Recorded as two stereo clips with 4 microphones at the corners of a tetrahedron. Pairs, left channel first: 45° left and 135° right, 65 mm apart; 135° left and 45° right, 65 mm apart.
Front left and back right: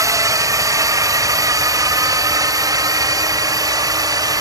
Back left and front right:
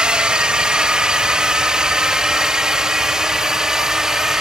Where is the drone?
120° right; by 4.4 s 125° right.